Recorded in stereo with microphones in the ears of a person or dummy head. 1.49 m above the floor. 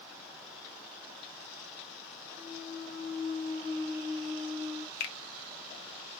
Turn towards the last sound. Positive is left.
turn(degrees=75)  # may be behind; listen again after turning